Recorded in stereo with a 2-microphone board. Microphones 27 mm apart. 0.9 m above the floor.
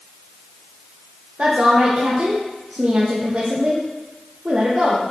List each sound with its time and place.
1.4 s a woman speaking: 50° right (ahead or behind), 0.6 m